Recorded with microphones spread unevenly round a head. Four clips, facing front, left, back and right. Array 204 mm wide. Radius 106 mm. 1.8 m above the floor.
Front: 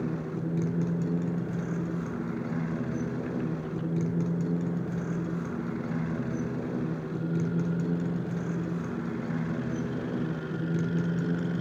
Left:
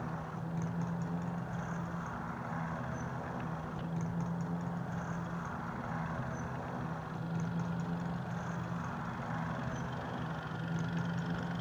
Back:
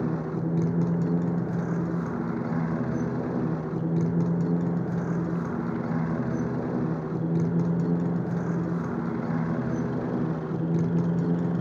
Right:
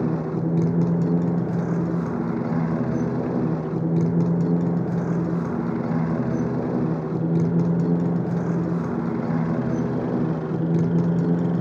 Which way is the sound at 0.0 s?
100° right.